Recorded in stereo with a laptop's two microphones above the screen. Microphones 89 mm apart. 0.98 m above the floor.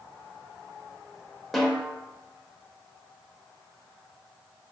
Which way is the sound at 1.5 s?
Centre (ahead or behind).